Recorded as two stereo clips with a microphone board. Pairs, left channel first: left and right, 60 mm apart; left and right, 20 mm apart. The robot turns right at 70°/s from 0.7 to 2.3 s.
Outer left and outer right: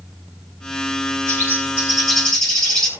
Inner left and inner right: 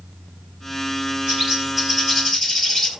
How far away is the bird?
About 5 m.